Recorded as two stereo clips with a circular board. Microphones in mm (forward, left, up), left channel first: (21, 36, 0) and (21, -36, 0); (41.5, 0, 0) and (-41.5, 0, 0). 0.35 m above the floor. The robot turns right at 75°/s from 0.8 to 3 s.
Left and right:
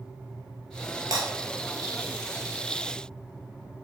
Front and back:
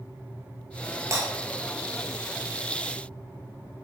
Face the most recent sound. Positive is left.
turn(degrees=15)